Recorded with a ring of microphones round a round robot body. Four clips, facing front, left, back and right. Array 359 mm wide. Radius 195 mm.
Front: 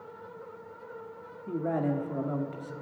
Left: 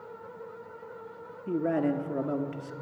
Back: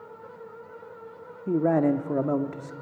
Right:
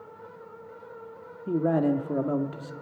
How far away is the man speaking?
About 1.3 m.